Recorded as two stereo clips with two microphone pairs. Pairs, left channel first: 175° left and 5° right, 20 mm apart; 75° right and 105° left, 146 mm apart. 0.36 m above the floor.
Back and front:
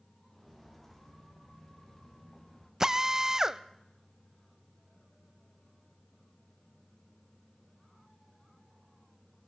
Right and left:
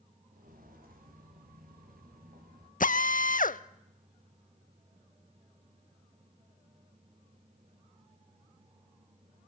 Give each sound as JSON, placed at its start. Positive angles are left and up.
{"t": 0.3, "sound": "footsteps", "azimuth_deg": 90, "distance_m": 4.0}
{"t": 2.8, "sound": "a drill", "azimuth_deg": -65, "distance_m": 0.6}